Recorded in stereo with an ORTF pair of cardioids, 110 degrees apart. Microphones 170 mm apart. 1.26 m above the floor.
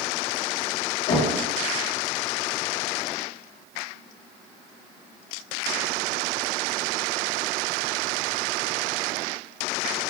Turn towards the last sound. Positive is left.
turn(degrees=70)